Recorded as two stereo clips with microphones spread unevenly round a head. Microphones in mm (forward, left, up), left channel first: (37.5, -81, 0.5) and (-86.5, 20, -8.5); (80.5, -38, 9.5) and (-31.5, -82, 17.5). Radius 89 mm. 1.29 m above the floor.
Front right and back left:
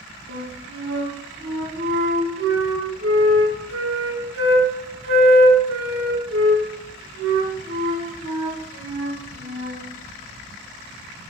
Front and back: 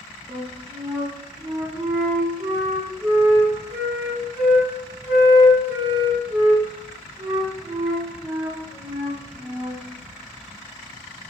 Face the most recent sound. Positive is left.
turn(degrees=120)